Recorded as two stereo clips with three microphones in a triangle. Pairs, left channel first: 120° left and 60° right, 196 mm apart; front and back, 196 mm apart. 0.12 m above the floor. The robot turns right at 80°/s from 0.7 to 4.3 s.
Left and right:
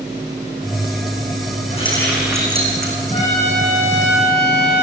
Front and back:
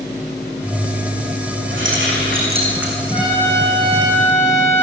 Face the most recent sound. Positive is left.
turn(degrees=155)